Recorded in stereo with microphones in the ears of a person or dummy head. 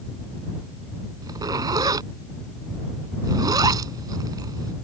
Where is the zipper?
20° right (ahead or behind).